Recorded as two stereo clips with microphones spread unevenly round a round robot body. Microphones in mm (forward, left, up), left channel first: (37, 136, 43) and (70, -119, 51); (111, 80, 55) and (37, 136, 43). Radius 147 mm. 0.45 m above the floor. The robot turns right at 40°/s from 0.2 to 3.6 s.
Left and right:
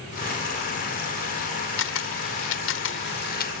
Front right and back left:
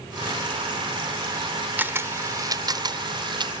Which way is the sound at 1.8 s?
80° left.